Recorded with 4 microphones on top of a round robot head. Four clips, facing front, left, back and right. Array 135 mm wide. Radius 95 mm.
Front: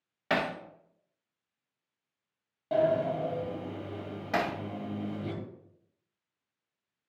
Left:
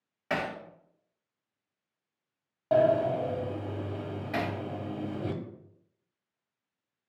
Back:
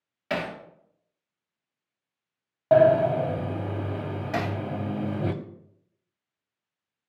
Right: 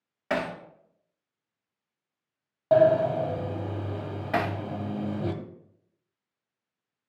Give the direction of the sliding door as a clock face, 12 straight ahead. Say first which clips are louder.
Right 4 dB, back 9 dB; 5 o'clock.